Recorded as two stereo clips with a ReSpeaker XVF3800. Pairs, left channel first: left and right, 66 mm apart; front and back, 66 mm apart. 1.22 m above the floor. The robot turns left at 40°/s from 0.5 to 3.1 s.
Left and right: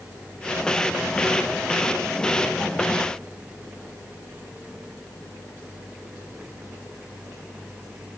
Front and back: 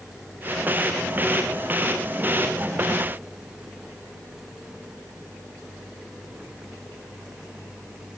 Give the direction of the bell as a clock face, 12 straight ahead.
I don't hear a bell.